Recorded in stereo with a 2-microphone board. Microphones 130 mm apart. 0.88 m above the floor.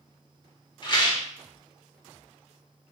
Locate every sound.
0.8 s a rattle: 35° left (ahead or behind), 0.8 m